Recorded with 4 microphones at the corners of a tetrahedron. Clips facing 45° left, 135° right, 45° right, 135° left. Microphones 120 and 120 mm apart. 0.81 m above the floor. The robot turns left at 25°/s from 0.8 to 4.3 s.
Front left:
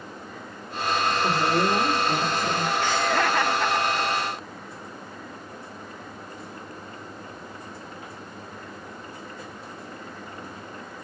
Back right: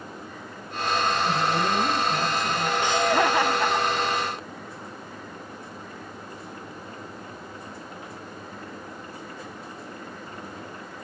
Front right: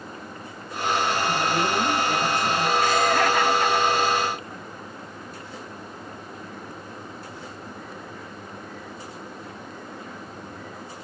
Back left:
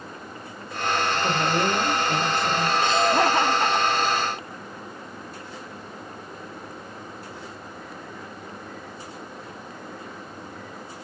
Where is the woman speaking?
75° left, 3 m; by 2.7 s 40° left, 3 m.